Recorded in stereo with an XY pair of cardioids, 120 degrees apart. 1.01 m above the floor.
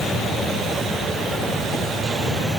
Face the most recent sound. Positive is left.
No sound to turn to.